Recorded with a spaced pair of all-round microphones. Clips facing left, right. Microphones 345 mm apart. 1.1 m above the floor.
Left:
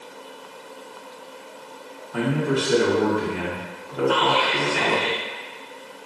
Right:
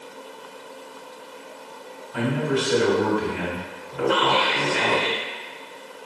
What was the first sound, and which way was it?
A man speaking, 60° left (ahead or behind).